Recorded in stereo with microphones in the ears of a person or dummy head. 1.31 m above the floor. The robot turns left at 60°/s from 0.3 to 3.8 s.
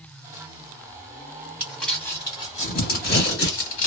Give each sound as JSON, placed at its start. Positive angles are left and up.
{"t": 1.6, "sound": "crumpling", "side_deg": -10, "distance_m": 1.4}